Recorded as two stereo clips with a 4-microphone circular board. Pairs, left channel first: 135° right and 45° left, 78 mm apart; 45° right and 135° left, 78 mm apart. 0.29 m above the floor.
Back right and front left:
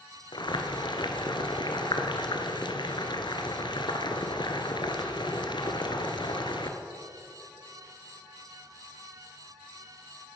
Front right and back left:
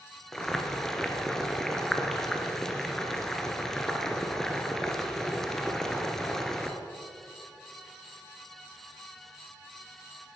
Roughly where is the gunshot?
No gunshot in this recording.